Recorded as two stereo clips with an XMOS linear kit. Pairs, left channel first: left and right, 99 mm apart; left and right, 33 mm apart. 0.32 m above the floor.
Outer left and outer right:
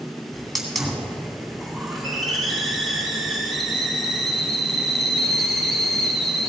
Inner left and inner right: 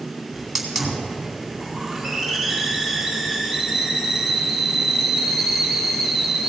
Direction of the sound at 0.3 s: Centre (ahead or behind).